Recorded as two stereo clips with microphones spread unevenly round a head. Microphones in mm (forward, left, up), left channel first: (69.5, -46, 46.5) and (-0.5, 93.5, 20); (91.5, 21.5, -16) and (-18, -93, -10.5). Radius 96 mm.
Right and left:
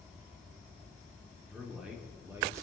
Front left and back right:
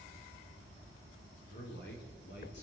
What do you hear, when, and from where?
1.4 s a man speaking: 30° left, 5 m; by 2.6 s 45° left, 4 m